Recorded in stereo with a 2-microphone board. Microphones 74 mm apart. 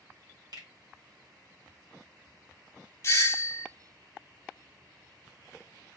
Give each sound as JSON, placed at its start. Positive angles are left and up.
{"t": 0.5, "sound": "a finger snap", "side_deg": -65, "distance_m": 1.1}
{"t": 3.0, "sound": "a doorbell", "side_deg": 35, "distance_m": 0.5}